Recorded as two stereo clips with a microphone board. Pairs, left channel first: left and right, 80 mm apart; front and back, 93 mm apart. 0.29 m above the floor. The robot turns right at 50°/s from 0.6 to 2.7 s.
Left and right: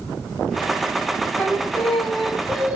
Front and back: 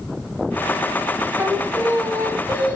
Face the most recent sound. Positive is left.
turn(degrees=-145)